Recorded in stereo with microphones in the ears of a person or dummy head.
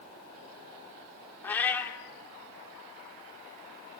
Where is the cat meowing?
10° left (ahead or behind), 1.7 m.